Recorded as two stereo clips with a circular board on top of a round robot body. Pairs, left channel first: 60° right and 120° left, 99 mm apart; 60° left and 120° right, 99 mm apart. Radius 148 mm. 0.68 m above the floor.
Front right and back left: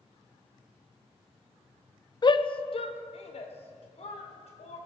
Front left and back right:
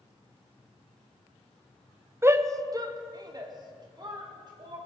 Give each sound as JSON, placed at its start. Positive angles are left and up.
{"t": 2.2, "sound": "a shout", "azimuth_deg": -65, "distance_m": 0.9}